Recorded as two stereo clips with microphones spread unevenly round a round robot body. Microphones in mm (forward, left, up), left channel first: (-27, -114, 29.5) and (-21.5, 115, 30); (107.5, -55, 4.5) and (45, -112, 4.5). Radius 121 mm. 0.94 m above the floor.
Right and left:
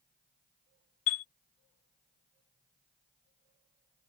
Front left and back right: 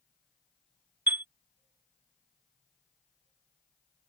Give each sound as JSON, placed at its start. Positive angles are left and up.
{"t": 1.1, "sound": "a chime", "azimuth_deg": -70}